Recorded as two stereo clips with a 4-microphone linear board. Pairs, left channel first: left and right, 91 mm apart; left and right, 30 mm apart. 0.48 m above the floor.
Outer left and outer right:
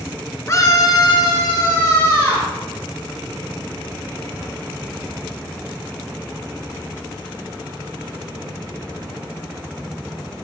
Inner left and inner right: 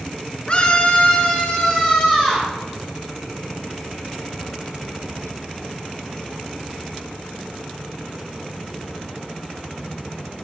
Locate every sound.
0.5 s a scream: 35° left (ahead or behind), 1.3 m; by 2.5 s 30° left (ahead or behind), 2.5 m